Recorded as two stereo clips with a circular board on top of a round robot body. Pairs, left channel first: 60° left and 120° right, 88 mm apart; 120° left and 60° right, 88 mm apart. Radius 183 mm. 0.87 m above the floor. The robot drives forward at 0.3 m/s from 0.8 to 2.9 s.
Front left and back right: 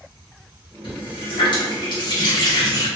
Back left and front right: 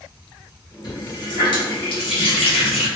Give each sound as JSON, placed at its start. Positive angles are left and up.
{"t": 0.8, "sound": "a running tap", "azimuth_deg": 80, "distance_m": 1.0}